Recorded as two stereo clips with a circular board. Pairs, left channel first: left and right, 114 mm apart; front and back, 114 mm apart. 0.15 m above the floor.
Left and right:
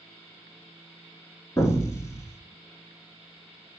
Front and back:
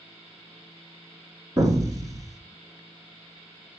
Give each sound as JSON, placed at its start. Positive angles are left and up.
{"t": 1.6, "sound": "an explosion", "azimuth_deg": 135, "distance_m": 1.2}